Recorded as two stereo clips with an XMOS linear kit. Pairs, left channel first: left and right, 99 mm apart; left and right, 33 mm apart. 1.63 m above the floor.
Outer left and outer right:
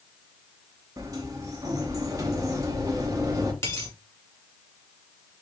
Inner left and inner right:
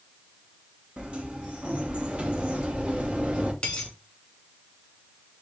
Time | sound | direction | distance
1.0 | a sliding door | 35° right (ahead or behind) | 0.8 m
3.6 | a dropped coin | 25° left (ahead or behind) | 1.7 m